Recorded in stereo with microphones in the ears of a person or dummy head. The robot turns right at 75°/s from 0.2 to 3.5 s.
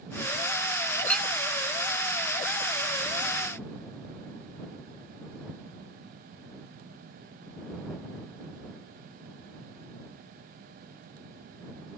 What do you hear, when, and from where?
0.9 s a clink: 15° left (ahead or behind); by 1.3 s 10° right (ahead or behind)